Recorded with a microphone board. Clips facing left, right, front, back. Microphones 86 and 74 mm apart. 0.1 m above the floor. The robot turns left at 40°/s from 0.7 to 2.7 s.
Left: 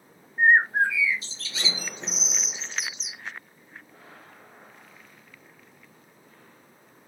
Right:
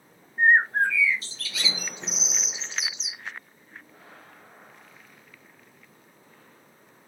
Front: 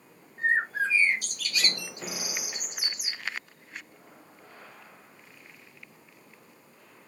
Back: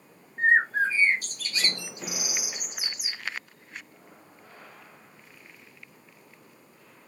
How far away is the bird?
About 0.8 m.